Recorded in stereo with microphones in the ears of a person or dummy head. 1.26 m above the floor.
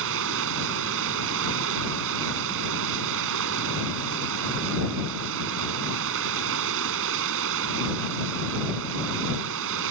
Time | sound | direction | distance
0.0 | running water | 70° right (ahead or behind) | ?